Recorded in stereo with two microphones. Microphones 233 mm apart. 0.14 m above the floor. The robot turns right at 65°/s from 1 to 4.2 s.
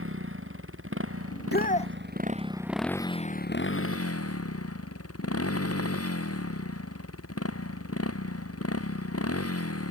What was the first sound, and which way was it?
A motorcycle, 115° right.